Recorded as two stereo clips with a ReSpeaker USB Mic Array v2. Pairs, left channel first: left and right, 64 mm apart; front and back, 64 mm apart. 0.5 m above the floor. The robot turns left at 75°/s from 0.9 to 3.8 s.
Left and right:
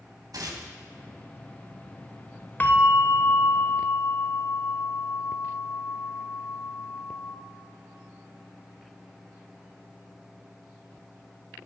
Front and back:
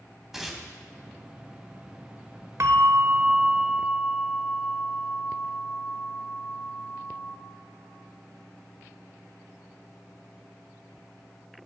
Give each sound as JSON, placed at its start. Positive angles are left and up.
{"t": 0.3, "sound": "tearing paper", "azimuth_deg": -95, "distance_m": 2.0}
{"t": 2.6, "sound": "a bell", "azimuth_deg": 150, "distance_m": 0.9}